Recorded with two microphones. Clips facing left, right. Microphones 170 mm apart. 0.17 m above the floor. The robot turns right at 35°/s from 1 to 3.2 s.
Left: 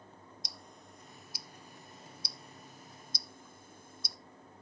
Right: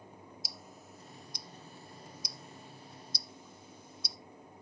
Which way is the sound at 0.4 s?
5° right (ahead or behind).